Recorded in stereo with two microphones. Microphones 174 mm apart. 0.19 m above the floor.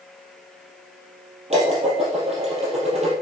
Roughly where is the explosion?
No explosion in this recording.